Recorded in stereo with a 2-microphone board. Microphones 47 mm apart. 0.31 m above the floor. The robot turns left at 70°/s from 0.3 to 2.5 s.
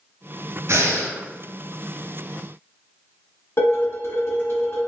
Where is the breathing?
65° right, 0.9 m; by 1.2 s 95° right, 0.9 m.